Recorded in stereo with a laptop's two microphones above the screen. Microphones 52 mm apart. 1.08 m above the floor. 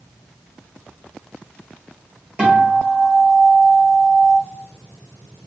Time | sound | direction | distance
2.4 | a guitar | 25° right (ahead or behind) | 0.9 m